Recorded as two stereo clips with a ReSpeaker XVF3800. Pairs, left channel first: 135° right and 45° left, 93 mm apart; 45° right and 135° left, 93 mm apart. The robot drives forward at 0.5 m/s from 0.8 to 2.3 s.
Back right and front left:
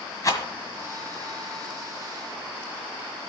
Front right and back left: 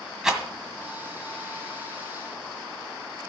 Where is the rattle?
145° right, 1.7 m.